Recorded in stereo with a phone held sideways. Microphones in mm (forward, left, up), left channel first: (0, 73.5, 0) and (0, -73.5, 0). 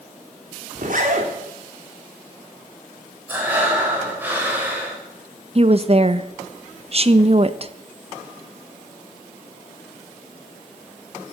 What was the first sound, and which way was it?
A zipper, 65° right (ahead or behind).